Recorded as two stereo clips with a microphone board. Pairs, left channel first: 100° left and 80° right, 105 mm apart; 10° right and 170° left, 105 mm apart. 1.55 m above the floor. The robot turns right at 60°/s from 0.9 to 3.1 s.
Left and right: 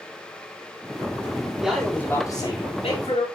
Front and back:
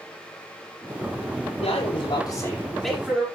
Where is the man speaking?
Straight ahead, 4.5 m; by 3.2 s 90° left, 4.5 m.